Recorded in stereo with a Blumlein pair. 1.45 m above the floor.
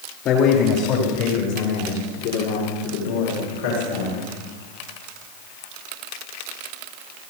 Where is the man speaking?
35° left, 4 m; by 4.3 s 65° left, 6 m.